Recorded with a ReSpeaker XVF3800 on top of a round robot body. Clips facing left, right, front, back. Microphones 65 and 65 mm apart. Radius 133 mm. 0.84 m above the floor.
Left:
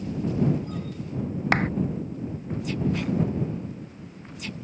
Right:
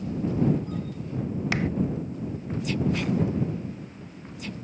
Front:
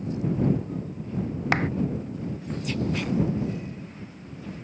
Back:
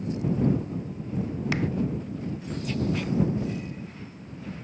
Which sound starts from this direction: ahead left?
A clap, at 1.5 s.